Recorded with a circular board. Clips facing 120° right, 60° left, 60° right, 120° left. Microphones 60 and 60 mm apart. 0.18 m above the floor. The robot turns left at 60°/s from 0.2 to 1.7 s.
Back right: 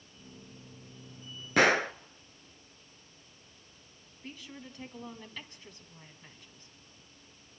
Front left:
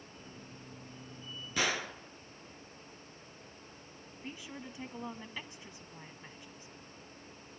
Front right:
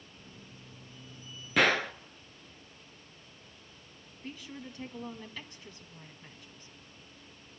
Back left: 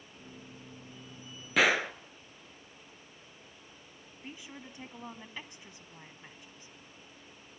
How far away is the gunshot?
About 0.6 m.